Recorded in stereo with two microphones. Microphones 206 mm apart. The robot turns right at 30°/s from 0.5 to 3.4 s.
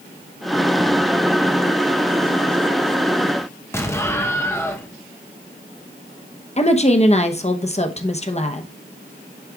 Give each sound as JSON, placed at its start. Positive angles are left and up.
{"t": 3.7, "sound": "an explosion", "side_deg": 10, "distance_m": 0.9}
{"t": 6.6, "sound": "a woman speaking", "side_deg": 30, "distance_m": 0.8}